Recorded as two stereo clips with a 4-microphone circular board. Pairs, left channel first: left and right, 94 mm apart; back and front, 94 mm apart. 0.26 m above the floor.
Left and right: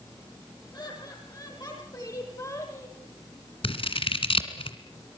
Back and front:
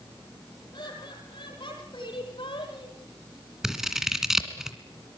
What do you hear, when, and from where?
0.7 s laughter: 140° left, 8 m; by 3.0 s 145° left, 9.5 m
3.6 s scissors: 85° left, 2 m